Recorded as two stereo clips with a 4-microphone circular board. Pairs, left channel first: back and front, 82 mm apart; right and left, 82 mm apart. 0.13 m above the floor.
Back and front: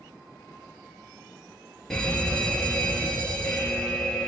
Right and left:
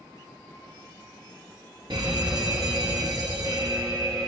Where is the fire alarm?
100° left, 4 m.